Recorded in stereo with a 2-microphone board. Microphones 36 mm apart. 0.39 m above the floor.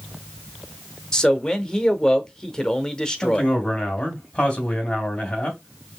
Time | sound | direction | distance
1.1 | a man speaking | 20° left (ahead or behind) | 0.8 m
3.2 | a man speaking | 30° left (ahead or behind) | 3 m